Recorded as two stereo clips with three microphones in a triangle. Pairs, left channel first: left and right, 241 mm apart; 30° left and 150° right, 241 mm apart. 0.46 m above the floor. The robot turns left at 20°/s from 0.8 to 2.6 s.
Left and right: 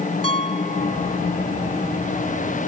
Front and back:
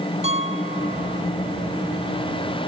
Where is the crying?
No crying in this recording.